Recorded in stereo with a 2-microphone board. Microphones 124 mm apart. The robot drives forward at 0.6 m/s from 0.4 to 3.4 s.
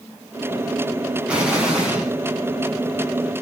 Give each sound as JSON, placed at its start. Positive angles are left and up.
{"t": 1.3, "sound": "an explosion", "side_deg": -10, "distance_m": 2.5}